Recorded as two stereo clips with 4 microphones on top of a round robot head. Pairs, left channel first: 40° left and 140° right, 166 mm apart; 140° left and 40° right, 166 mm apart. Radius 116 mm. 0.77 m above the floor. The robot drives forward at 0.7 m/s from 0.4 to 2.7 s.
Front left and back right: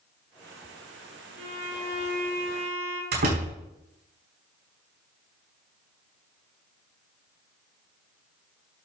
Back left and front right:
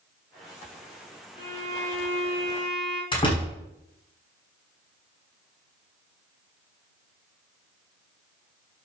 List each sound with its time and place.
1.4 s a violin: 165° right, 3.5 m
3.1 s a door slam: 160° right, 5 m